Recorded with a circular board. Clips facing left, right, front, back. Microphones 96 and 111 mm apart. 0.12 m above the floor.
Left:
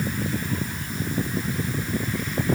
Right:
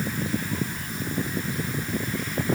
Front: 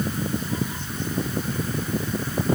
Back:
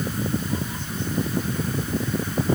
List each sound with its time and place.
Only background noise.